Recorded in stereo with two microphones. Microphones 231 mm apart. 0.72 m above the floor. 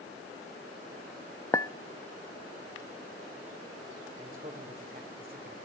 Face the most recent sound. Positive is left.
turn(degrees=-40)  # may be behind; listen again after turning